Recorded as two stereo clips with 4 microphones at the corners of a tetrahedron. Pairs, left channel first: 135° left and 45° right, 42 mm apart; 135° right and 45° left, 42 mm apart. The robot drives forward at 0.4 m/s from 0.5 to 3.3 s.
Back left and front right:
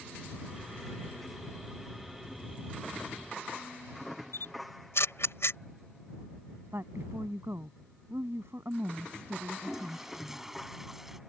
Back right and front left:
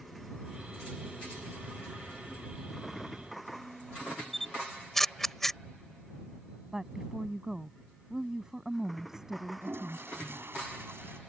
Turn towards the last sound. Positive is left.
turn(degrees=35)